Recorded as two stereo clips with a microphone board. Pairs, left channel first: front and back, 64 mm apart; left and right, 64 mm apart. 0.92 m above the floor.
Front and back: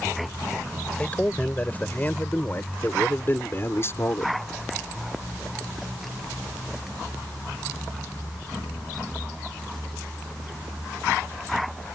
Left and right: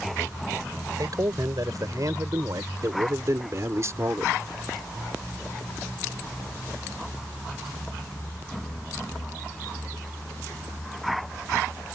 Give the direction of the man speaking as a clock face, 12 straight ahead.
2 o'clock.